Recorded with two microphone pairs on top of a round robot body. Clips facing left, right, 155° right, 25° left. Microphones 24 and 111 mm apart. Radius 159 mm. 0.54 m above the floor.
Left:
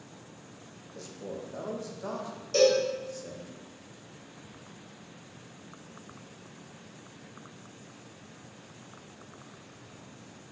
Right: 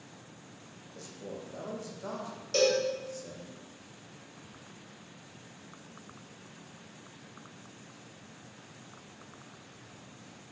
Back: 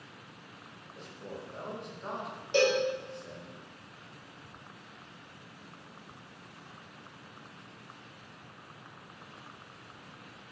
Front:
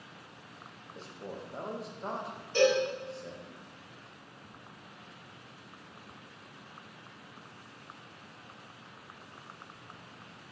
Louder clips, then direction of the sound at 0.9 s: Left 3 dB, front 1 dB; 35° left.